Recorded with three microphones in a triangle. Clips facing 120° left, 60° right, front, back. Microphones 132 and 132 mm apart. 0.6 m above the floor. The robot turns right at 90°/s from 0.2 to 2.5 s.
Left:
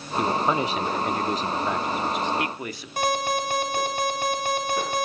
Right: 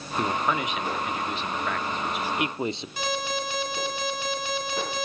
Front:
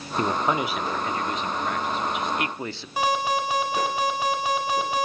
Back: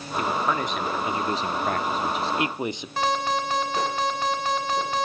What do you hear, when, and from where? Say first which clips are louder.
0.2 s a man speaking: left 3 dB, front 1 dB; 40° left, 0.8 m; by 2.9 s 115° right, 0.8 m
3.0 s an alarm: left 8 dB, front 1 dB; 80° left, 6.5 m